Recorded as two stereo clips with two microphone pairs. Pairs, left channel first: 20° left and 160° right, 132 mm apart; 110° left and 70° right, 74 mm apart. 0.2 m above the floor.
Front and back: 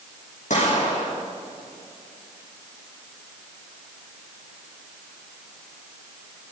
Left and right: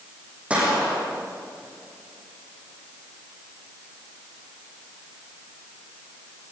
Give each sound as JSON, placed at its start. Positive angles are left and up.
{"t": 0.5, "sound": "a gunshot", "azimuth_deg": 0, "distance_m": 8.5}